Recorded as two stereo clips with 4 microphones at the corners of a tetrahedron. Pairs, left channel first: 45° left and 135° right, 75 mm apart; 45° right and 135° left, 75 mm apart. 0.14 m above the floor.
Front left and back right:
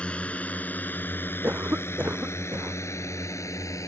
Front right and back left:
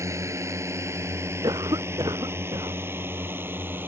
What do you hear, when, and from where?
0.0 s a drone: 115° left; by 3.9 s 80° left
1.4 s a cough: 160° left